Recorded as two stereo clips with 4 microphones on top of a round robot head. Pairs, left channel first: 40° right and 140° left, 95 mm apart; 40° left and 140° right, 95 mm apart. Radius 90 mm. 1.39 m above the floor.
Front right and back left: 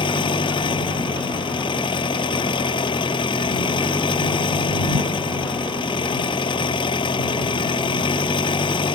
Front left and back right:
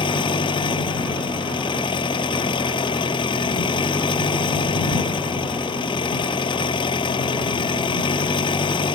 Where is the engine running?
Straight ahead.